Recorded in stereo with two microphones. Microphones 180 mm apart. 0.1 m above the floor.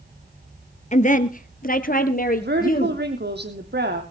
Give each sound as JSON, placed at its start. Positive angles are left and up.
{"t": 0.9, "sound": "a woman speaking", "side_deg": 40, "distance_m": 1.4}
{"t": 2.4, "sound": "a woman speaking", "side_deg": -65, "distance_m": 3.0}